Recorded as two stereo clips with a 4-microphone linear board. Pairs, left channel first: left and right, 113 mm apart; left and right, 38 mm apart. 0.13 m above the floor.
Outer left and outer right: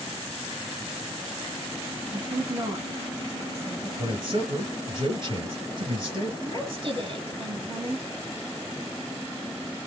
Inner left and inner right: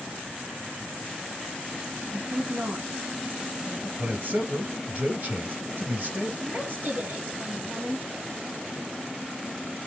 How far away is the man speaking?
About 2.5 m.